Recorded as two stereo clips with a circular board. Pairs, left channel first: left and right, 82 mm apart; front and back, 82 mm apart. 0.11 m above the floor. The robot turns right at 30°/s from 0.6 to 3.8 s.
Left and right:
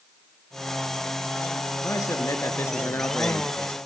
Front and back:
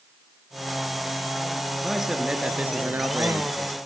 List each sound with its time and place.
1.8 s a man speaking: 95° left, 2 m; by 3.8 s 155° left, 2 m